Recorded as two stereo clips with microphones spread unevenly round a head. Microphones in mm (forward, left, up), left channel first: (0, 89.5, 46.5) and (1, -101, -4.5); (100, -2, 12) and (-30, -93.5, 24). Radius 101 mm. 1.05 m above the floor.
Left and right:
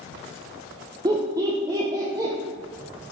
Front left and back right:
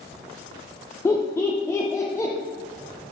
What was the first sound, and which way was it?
Laughter, 35° right.